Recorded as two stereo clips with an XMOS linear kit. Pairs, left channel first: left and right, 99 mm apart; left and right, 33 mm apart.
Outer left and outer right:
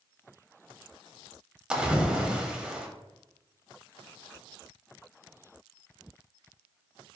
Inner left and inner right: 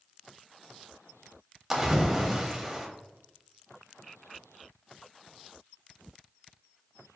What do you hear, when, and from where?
1.7 s a splash: 10° right (ahead or behind), 0.7 m